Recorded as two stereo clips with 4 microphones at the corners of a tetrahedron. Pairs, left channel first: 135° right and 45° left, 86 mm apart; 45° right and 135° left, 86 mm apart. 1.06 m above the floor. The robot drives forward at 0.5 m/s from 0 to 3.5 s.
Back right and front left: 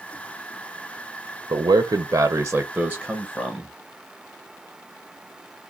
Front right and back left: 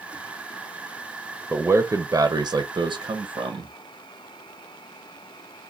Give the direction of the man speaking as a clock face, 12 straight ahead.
10 o'clock.